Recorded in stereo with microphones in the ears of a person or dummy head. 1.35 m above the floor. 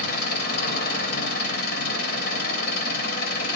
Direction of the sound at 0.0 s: 55° left (ahead or behind).